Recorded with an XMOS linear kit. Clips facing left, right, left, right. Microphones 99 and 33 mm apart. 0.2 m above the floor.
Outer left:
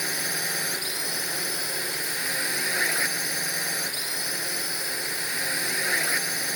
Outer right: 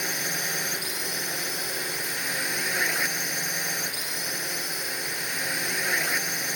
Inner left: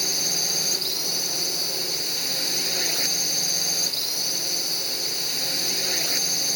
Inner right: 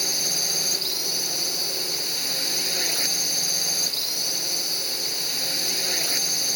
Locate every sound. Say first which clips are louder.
0.0 s a drone: even, even; 5° left (ahead or behind)